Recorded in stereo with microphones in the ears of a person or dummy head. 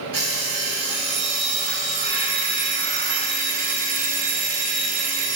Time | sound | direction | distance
0.1 | an alarm clock | 50° right (ahead or behind) | 1.5 m